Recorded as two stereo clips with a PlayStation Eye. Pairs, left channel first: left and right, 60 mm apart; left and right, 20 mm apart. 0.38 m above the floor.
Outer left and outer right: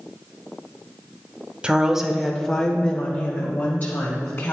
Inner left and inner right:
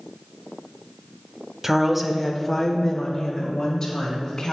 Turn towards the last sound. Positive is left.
turn(degrees=40)  # may be behind; listen again after turning